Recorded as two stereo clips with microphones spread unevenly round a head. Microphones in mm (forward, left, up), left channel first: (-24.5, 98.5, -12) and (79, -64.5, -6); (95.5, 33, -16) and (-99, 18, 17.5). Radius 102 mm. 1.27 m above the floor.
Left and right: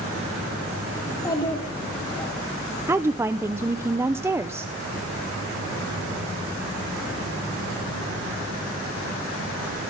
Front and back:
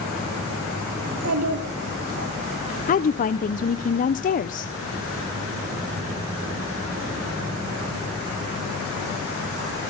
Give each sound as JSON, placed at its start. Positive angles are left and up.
{"t": 1.0, "sound": "a child speaking", "azimuth_deg": -165, "distance_m": 2.5}
{"t": 2.9, "sound": "a woman speaking", "azimuth_deg": 20, "distance_m": 0.7}